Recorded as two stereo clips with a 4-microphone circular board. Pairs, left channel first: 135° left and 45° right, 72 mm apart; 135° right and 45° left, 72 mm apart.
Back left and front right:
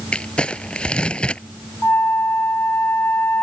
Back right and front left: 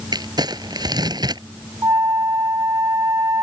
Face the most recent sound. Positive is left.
turn(degrees=80)